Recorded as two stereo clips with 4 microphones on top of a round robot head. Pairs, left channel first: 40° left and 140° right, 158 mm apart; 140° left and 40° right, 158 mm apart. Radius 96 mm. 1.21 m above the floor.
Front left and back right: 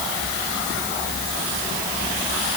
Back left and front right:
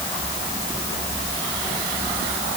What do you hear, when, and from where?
Only background noise.